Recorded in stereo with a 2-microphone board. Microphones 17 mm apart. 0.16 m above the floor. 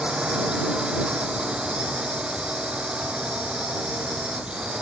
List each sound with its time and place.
0.0 s a drone: 65° right (ahead or behind)